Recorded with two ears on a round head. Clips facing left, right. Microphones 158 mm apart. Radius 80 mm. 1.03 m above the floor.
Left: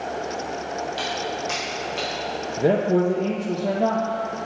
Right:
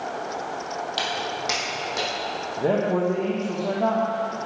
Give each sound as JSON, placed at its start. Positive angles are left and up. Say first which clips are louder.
{"t": 1.0, "sound": "footsteps", "louder": "left 1 dB", "side_deg": -60, "distance_m": 2.0}
{"t": 2.6, "sound": "a man speaking", "louder": "left 3 dB", "side_deg": 20, "distance_m": 0.7}